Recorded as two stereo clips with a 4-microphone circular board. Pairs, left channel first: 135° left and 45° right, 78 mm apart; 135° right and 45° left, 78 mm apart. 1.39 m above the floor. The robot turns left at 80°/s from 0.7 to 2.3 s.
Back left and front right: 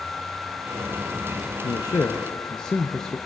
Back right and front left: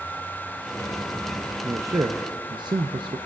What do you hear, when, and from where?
1.6 s a man speaking: 110° left, 0.5 m; by 3.2 s 55° left, 0.5 m